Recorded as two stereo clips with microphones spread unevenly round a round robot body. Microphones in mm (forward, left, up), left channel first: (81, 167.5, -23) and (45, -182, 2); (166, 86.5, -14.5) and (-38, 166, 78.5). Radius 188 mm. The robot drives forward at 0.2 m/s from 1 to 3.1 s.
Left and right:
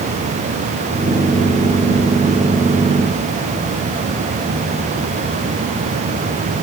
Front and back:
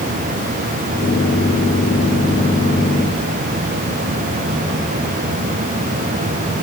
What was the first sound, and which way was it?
Only background noise.